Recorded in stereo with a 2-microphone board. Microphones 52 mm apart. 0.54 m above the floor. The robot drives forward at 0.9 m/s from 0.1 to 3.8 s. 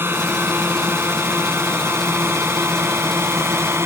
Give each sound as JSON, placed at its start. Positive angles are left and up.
{"t": 0.0, "sound": "a drone", "side_deg": -45}